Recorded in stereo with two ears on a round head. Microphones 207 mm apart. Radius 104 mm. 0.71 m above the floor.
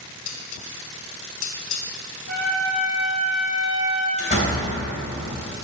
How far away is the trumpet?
About 4 m.